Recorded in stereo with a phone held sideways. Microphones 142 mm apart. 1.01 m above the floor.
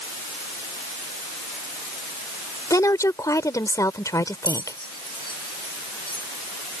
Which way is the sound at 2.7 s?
25° left (ahead or behind).